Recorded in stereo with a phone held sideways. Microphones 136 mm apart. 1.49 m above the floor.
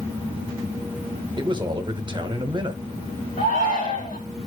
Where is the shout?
85° left, 3.5 m.